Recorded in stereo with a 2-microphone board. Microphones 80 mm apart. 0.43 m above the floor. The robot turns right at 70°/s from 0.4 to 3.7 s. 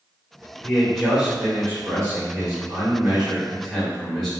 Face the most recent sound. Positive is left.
turn(degrees=10)